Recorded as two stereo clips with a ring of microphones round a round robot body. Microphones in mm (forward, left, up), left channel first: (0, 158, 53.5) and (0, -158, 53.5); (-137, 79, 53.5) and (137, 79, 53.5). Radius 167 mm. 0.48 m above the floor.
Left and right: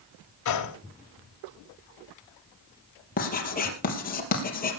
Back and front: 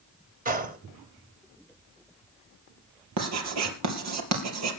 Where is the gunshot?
60° left, 2 m.